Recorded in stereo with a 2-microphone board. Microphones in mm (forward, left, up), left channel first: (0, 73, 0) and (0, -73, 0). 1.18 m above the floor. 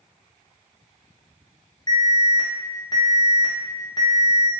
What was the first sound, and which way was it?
An alarm, 30° left (ahead or behind).